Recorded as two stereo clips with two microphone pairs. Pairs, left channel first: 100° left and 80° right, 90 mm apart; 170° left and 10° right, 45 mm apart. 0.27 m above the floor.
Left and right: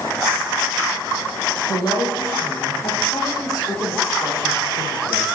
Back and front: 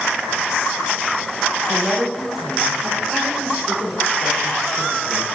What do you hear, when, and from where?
1.7 s a woman speaking: 75° left, 9 m; by 5.2 s 50° left, 9 m